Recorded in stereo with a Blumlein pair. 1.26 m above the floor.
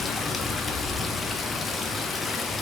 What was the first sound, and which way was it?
Running water, 15° left.